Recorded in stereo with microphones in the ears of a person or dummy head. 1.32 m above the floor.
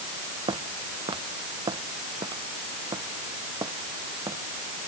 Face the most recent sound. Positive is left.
turn(degrees=-20)  # may be behind; listen again after turning